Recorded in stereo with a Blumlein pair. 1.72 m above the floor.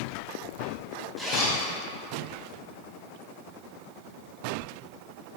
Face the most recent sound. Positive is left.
turn(degrees=-5)